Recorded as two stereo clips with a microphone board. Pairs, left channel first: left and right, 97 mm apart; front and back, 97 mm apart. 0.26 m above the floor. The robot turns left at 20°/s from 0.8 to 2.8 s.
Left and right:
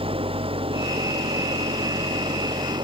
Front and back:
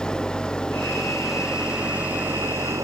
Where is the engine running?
80° right; by 2.9 s 120° right.